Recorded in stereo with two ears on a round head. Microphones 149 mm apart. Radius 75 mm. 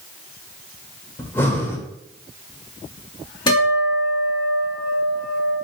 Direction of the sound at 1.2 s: 15° left (ahead or behind).